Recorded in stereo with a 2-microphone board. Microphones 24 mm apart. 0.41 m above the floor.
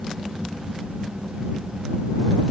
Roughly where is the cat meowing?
I don't hear a cat meowing.